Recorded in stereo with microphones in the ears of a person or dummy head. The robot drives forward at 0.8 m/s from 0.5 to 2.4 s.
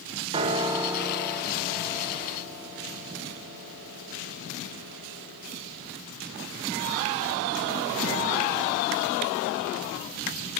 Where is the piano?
30° right (ahead or behind), 0.6 m; by 5.8 s 10° right (ahead or behind), 2 m.